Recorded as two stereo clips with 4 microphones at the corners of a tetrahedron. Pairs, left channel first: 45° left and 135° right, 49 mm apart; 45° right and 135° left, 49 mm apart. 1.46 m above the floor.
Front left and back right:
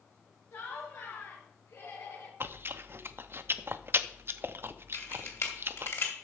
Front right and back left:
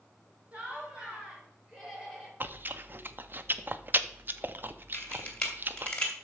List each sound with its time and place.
0.5 s laughter: 70° left, 4 m; by 2.3 s 50° left, 5 m
2.4 s chewing: 175° right, 0.5 m
4.9 s a camera shutter: 25° left, 2 m